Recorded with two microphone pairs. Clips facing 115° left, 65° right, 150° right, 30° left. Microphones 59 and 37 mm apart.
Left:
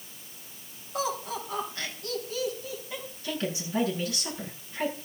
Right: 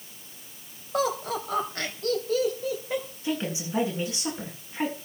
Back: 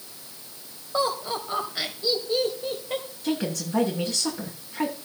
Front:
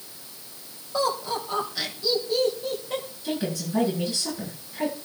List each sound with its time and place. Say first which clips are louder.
0.9 s laughter: right 4 dB, even; 90° right, 3.5 m
3.2 s a woman speaking: left 1 dB, back 2 dB; 135° right, 7.5 m